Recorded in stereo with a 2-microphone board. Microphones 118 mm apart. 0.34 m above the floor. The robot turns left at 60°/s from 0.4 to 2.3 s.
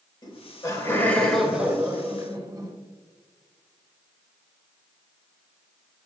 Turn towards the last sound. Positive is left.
turn(degrees=-55)